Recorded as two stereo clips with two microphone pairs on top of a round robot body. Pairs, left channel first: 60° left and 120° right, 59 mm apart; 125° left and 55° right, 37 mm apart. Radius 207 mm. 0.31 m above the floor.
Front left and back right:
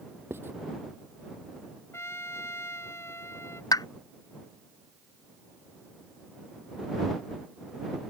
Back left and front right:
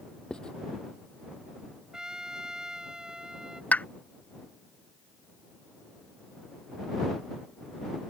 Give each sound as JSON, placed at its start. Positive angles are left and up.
{"t": 0.3, "sound": "writing", "azimuth_deg": -170}
{"t": 1.9, "sound": "a trumpet", "azimuth_deg": 15}
{"t": 3.7, "sound": "a pop", "azimuth_deg": 70}